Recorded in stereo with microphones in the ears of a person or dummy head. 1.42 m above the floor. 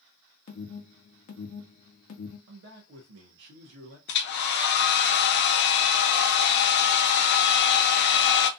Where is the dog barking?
I don't hear a dog barking.